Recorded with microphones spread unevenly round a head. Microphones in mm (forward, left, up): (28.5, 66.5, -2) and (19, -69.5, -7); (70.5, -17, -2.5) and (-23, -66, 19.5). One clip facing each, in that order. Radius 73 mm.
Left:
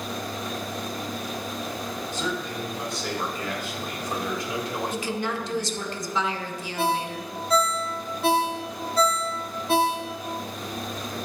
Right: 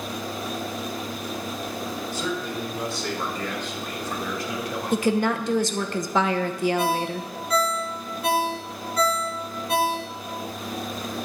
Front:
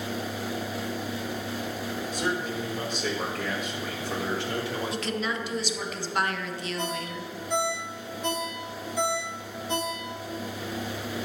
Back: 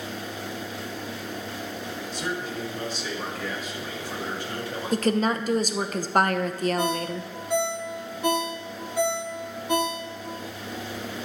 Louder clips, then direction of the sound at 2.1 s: Right 1 dB, front 1 dB; 15° right.